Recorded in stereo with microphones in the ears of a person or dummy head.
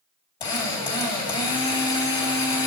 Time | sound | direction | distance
0.4 | a drill | 20° left (ahead or behind) | 3 m